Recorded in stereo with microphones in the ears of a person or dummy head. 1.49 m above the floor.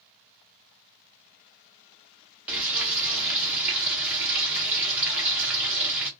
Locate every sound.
2.5 s frying: 5° right (ahead or behind), 0.8 m